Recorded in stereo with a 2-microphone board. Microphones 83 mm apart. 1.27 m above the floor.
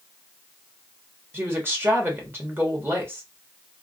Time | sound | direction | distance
1.3 | a woman speaking | 25° right (ahead or behind) | 1.2 m